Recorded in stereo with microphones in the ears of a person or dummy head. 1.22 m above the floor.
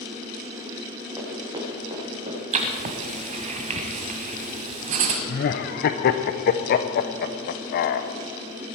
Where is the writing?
30° right (ahead or behind), 1.5 m.